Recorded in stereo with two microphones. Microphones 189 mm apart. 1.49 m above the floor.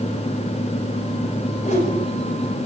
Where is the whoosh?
40° left (ahead or behind), 5.5 m.